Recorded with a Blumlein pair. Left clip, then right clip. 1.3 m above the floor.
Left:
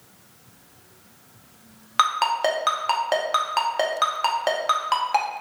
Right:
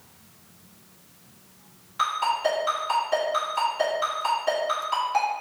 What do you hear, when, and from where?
2.0 s a ringtone: 40° left, 0.6 m